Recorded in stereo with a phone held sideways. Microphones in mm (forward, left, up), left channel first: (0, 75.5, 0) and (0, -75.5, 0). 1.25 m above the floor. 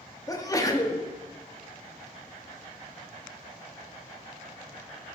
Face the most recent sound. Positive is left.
turn(degrees=25)  # may be behind; listen again after turning